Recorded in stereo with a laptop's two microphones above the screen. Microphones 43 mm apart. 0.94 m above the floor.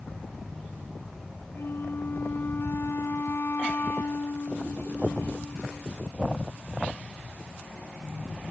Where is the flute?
70° left (ahead or behind).